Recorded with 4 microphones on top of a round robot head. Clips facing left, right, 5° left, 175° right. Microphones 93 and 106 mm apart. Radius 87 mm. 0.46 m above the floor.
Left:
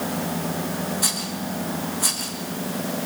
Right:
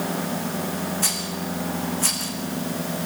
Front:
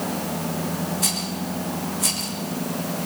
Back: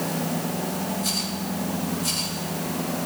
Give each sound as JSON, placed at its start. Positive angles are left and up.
{"t": 1.0, "sound": "a rattle", "azimuth_deg": 15, "distance_m": 6.5}